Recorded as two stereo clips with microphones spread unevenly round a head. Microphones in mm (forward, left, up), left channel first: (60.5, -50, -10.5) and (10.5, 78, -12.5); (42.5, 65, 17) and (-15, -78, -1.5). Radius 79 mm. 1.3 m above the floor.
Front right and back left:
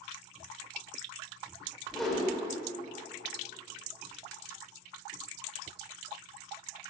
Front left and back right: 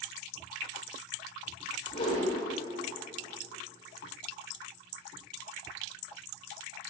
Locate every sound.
1.9 s a whoosh: 20° left, 3 m